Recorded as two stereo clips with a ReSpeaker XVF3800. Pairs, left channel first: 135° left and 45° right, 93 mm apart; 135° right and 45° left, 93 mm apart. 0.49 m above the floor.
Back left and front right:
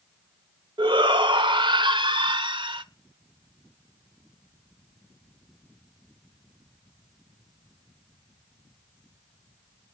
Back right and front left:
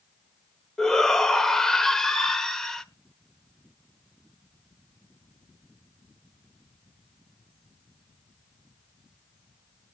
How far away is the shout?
About 1.3 m.